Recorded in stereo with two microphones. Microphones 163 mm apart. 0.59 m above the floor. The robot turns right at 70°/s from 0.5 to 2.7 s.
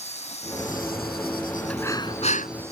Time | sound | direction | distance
0.0 | an insect | 45° left | ?
1.7 | breathing | 5° left | ?